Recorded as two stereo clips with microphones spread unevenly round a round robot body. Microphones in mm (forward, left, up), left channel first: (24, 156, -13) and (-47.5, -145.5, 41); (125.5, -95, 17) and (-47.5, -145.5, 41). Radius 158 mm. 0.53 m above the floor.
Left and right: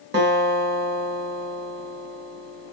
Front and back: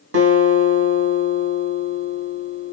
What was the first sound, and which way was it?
A guitar, 165° right.